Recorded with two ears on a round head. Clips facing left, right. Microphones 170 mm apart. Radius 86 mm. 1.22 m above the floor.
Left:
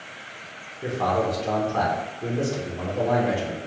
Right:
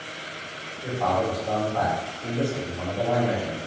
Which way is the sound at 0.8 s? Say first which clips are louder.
Left 1 dB; 80° left.